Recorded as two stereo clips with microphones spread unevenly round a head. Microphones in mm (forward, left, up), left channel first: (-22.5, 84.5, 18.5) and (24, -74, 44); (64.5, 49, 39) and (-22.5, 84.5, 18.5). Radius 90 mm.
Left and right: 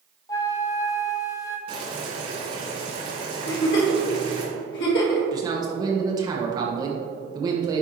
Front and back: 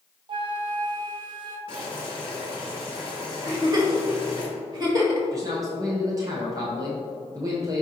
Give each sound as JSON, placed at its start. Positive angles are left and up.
{"t": 0.3, "sound": "a flute", "azimuth_deg": 180, "distance_m": 0.5}
{"t": 1.7, "sound": "boiling", "azimuth_deg": -120, "distance_m": 1.9}
{"t": 3.5, "sound": "a giggle", "azimuth_deg": 120, "distance_m": 1.9}
{"t": 5.3, "sound": "a man speaking", "azimuth_deg": -145, "distance_m": 0.9}